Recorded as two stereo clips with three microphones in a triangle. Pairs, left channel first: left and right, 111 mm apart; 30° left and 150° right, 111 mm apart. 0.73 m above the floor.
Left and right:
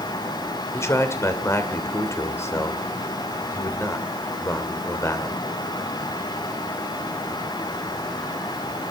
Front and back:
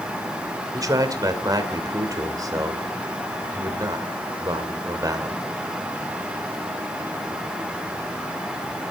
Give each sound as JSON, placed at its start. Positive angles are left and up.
{"t": 0.7, "sound": "a man speaking", "azimuth_deg": 155, "distance_m": 2.5}